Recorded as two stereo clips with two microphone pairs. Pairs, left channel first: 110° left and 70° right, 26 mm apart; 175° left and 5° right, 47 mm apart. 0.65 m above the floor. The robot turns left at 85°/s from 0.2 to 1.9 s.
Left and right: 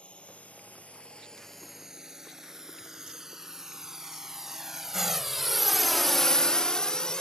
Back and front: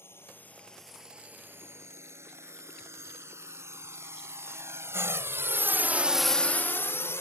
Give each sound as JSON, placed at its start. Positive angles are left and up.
{"t": 0.0, "sound": "a drone", "azimuth_deg": 145}